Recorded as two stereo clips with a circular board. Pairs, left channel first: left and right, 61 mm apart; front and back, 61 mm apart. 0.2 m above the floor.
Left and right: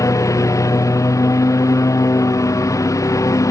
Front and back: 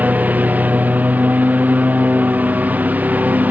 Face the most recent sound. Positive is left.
turn(degrees=115)